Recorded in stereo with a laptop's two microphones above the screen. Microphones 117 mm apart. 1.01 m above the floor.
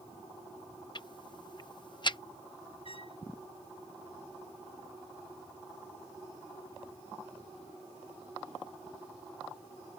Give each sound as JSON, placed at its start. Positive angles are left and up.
{"t": 0.9, "sound": "ticking", "side_deg": 40}
{"t": 2.9, "sound": "a trumpet", "side_deg": 50}